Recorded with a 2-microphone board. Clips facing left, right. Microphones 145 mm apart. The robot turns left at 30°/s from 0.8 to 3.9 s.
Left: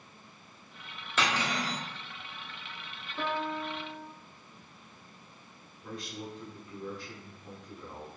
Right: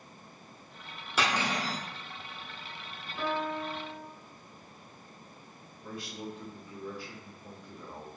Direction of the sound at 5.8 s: 10° right (ahead or behind).